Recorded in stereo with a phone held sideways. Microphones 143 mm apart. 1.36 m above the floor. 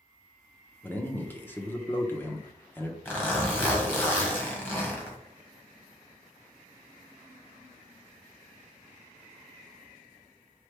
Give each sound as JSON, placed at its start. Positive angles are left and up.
{"t": 0.8, "sound": "a man speaking", "side_deg": 15, "distance_m": 0.7}
{"t": 3.0, "sound": "a zipper", "side_deg": 15, "distance_m": 1.4}